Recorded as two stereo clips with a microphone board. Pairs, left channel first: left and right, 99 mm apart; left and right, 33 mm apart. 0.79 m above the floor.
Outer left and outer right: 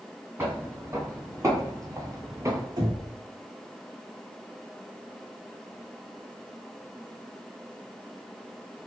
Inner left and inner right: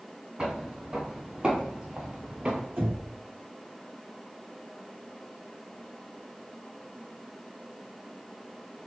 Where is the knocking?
45° right (ahead or behind), 1.5 m.